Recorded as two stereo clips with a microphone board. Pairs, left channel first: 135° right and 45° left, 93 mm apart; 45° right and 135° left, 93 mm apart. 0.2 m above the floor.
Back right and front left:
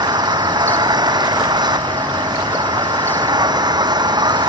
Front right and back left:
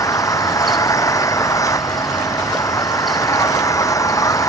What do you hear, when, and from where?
0.0 s an engine running: 5° left